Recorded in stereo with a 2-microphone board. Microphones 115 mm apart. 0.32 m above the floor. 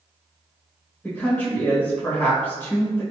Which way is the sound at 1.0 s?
15° left (ahead or behind).